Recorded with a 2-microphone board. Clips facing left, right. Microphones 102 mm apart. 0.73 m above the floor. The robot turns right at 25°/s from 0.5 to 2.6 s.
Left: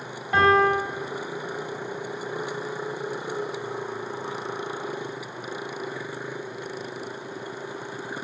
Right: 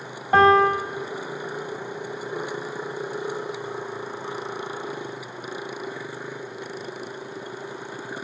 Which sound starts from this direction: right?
A piano, at 0.3 s.